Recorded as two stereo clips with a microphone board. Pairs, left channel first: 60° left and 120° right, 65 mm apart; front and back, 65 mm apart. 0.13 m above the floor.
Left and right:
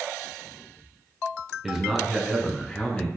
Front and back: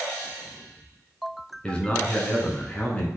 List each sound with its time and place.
1.6 s a man speaking: 45° right, 1.3 m; by 3.1 s 30° left, 1.4 m